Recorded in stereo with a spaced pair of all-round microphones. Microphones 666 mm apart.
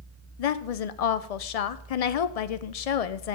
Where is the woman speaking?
65° left (ahead or behind), 0.6 m.